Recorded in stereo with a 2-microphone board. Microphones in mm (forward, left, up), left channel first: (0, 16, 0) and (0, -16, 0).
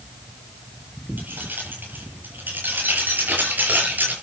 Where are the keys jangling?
70° right (ahead or behind), 9.5 m; by 4.1 s 65° right (ahead or behind), 8 m.